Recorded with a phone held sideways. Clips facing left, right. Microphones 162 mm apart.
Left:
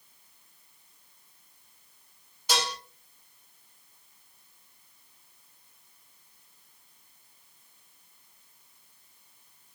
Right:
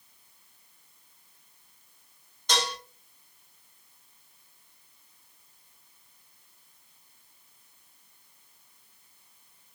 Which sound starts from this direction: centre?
Dishes clattering, at 2.5 s.